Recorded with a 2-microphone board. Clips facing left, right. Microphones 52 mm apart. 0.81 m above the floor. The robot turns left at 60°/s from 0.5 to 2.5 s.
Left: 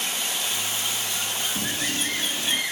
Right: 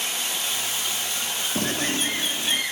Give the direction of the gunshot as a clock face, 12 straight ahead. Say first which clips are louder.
Right 6 dB; 4 o'clock.